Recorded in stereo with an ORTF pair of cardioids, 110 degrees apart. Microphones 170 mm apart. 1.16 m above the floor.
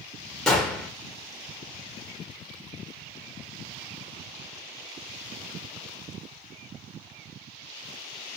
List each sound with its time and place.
0.5 s a gunshot: 5° left, 0.9 m